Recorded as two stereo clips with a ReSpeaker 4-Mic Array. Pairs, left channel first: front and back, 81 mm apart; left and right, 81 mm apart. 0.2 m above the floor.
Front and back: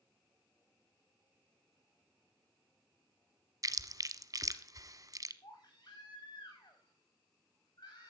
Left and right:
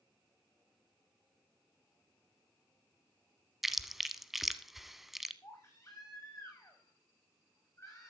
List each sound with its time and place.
3.6 s chewing: 175° right, 0.9 m
5.4 s a baby crying: 35° left, 8.5 m